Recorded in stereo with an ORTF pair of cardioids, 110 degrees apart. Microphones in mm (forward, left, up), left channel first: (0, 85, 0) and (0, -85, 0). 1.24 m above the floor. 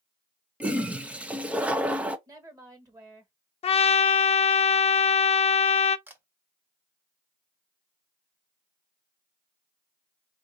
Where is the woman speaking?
20° right, 1.6 m.